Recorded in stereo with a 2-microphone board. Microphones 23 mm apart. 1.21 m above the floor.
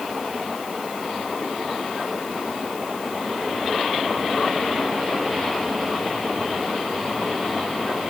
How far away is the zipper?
No zipper in this recording.